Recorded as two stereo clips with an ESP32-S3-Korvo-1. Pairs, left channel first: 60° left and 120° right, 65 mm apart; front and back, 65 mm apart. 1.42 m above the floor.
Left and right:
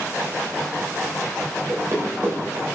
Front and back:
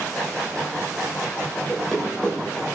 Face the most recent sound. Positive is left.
turn(degrees=-80)